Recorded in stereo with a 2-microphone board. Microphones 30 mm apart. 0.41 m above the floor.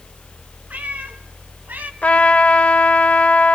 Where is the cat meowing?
75° right (ahead or behind), 2.5 m; by 1.9 s 70° right (ahead or behind), 1.4 m.